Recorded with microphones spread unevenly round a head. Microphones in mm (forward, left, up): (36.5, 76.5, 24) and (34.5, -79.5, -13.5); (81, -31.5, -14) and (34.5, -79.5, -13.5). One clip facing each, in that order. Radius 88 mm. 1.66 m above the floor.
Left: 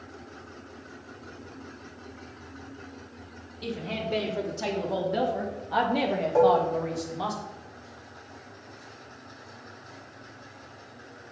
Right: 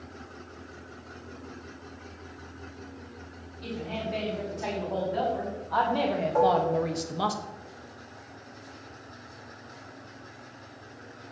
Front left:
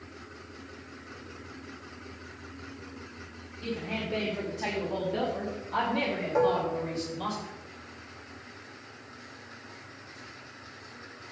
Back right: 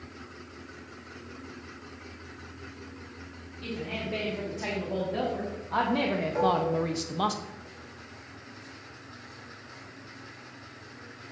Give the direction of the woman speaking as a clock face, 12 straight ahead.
8 o'clock.